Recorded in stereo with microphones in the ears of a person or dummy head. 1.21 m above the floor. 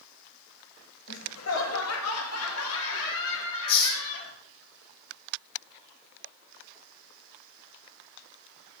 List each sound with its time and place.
1.1 s laughter: 70° left (ahead or behind), 1.8 m; by 4.3 s 65° left (ahead or behind), 3 m
3.7 s a hiss: 50° left (ahead or behind), 1.5 m